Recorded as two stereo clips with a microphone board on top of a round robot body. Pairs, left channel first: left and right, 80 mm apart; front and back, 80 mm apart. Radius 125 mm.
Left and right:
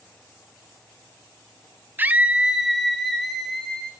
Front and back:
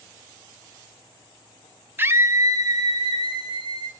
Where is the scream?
135° right, 0.9 m; by 3.9 s 165° left, 1.8 m.